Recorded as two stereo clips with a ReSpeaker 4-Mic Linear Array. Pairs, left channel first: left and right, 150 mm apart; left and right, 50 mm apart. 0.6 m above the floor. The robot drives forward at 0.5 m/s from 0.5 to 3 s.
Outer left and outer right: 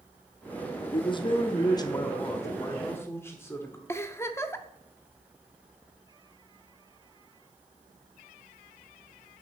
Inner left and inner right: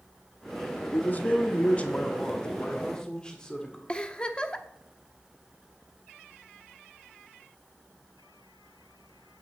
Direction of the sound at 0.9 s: 35° left (ahead or behind).